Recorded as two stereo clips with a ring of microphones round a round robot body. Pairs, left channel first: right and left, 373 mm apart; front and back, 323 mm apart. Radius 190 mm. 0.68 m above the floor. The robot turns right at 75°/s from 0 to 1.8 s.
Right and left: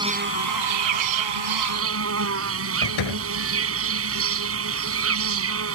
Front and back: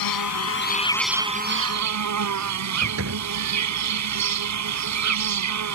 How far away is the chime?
I don't hear a chime.